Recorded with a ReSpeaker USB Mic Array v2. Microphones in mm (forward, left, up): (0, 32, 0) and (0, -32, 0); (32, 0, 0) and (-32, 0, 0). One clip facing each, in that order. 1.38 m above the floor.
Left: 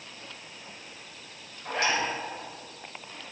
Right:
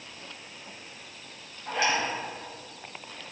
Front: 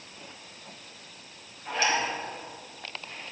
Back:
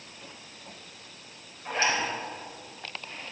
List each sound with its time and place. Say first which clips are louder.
1.6 s a zipper: right 1 dB, even; 120° left, 3.5 m